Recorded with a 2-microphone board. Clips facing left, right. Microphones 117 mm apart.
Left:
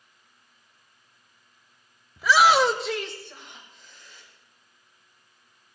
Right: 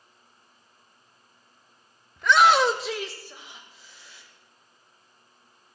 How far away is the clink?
I don't hear a clink.